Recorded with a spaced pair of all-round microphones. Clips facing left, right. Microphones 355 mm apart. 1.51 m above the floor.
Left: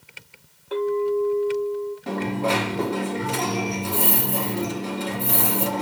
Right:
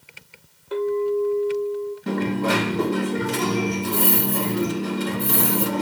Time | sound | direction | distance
0.7 | a clink | 5° right (ahead or behind) | 2 m
2.1 | a dropped coin | 25° right (ahead or behind) | 1.1 m